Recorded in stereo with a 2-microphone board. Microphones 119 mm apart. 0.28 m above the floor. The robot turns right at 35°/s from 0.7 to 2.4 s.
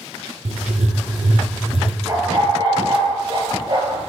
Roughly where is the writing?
Right.